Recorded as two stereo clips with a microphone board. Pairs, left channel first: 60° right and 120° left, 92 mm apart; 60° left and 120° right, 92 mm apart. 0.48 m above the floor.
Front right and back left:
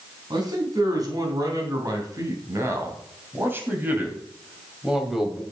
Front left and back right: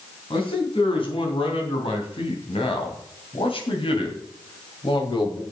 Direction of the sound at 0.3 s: 80° left.